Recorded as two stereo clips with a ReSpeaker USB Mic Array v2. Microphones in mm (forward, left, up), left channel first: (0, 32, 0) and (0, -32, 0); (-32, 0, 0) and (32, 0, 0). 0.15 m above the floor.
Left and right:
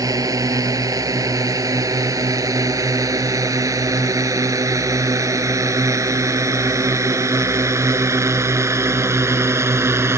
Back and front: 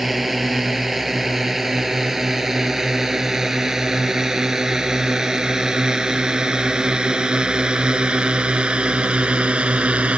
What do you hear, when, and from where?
0.0 s a drone: 85° right; by 10.2 s 60° right